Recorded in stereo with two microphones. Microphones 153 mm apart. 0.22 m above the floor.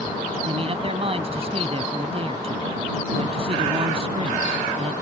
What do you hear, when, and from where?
0.5 s a man speaking: 40° right (ahead or behind)